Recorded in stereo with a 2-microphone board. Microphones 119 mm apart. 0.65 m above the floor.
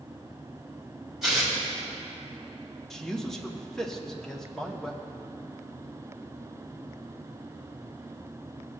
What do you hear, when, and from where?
1.2 s tearing paper: centre (ahead or behind), 3.5 m
2.9 s a man speaking: 5° left (ahead or behind), 1.1 m